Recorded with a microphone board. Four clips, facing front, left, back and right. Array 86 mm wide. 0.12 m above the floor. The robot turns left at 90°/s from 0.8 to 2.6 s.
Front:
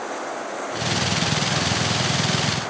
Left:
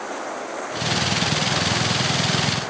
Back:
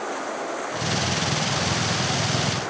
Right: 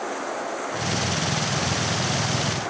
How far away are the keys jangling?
No keys jangling in this recording.